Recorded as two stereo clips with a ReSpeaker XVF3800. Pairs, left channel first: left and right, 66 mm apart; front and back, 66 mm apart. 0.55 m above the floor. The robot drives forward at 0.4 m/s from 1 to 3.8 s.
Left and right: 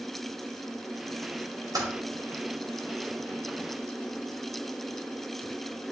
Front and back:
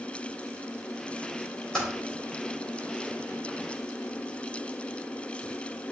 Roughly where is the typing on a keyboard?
Right.